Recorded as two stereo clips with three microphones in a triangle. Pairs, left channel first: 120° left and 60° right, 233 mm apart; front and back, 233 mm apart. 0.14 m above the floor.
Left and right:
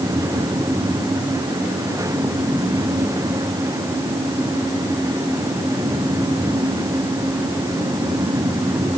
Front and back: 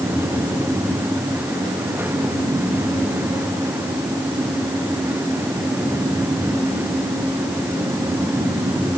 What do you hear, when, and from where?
Only background noise.